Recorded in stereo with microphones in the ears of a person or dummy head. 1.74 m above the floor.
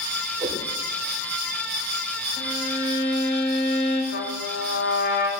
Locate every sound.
0.4 s a whoosh: 25° right (ahead or behind), 2.5 m
2.4 s a violin: 50° left (ahead or behind), 7.5 m
4.1 s a trumpet: 55° left (ahead or behind), 3 m